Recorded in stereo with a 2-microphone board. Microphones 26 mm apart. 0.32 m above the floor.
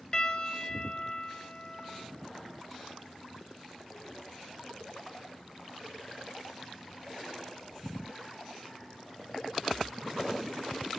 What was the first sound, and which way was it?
A piano, 30° left (ahead or behind).